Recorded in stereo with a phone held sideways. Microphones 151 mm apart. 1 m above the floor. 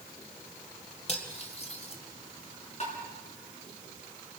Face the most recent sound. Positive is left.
turn(degrees=45)  # may be behind; listen again after turning